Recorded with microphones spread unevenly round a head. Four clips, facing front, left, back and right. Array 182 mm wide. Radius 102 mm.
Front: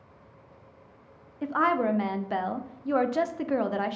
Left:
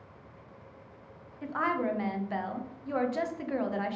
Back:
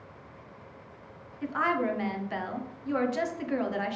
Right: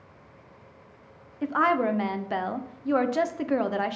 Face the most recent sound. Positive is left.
turn(degrees=-70)